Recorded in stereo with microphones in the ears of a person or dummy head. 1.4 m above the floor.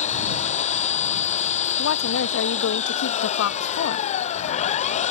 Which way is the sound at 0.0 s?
30° left (ahead or behind).